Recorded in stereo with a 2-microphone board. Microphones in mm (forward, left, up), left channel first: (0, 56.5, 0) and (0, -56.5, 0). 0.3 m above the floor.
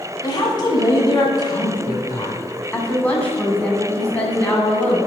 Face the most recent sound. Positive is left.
turn(degrees=15)  # may be behind; listen again after turning